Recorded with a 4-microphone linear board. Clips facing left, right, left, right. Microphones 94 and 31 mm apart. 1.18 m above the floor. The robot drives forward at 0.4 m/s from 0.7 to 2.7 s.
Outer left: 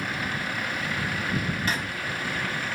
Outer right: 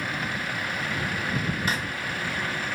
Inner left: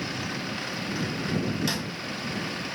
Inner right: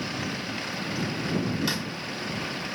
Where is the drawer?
15° right (ahead or behind), 1.0 m.